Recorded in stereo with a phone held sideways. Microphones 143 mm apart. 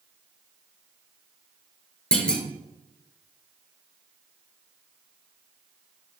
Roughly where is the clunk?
Centre.